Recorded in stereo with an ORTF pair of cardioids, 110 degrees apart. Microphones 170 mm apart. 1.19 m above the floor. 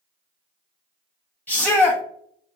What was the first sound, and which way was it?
A shout, 10° left.